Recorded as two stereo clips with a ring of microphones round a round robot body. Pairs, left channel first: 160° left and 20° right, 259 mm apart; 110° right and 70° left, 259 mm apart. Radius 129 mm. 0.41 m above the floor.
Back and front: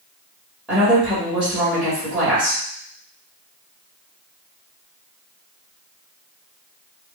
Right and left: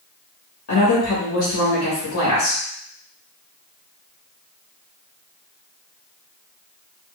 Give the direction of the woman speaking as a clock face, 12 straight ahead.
4 o'clock.